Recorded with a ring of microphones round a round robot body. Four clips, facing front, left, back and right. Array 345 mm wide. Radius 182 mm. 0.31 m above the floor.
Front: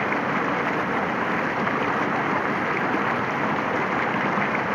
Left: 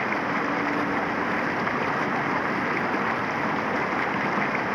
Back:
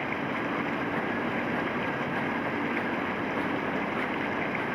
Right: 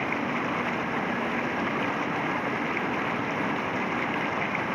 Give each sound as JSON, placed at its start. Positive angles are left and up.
{"t": 0.0, "sound": "running water", "azimuth_deg": 15}